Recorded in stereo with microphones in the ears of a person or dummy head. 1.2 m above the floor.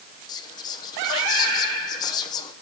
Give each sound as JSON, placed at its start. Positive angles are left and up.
{"t": 0.3, "sound": "whispering", "side_deg": 25, "distance_m": 0.6}